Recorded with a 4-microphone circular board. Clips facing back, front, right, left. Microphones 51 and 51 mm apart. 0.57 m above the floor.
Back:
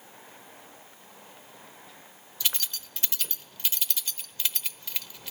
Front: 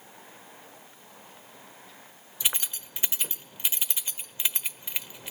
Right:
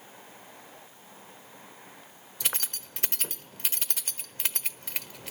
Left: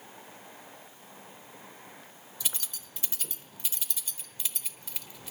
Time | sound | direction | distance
2.4 | keys jangling | 65° right | 1.1 m